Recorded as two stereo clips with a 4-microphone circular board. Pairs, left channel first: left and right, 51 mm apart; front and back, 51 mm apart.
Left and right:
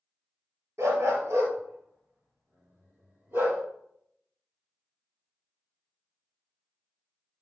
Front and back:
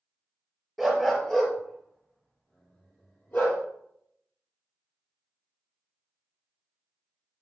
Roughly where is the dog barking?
Right.